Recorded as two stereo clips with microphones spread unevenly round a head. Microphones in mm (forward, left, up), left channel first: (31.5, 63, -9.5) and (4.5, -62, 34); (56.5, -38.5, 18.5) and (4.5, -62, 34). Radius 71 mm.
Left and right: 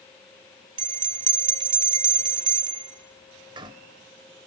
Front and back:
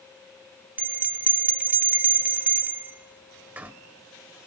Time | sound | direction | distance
0.8 | a bell | 120° right | 0.8 m